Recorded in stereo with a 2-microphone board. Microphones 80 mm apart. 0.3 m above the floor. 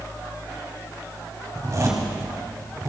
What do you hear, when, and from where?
1.6 s a zipper: 40° right (ahead or behind), 2 m